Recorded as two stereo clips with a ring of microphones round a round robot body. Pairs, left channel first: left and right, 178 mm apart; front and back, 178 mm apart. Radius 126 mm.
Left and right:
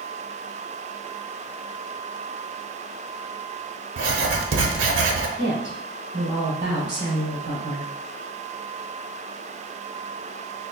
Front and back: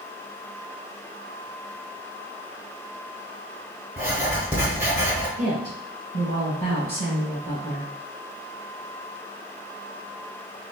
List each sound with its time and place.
4.0 s writing: 100° right, 0.7 m
5.4 s a woman speaking: 130° right, 2 m